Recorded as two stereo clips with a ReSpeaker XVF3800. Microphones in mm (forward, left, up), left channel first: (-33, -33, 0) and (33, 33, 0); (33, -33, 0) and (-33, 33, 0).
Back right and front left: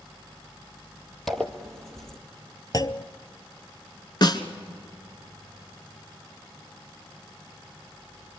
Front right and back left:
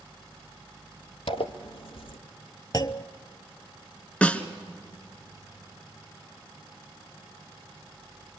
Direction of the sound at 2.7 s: 90° right.